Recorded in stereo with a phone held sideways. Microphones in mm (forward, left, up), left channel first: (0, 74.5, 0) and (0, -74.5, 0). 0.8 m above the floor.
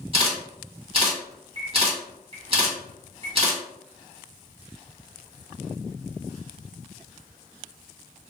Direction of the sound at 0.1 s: 35° right (ahead or behind).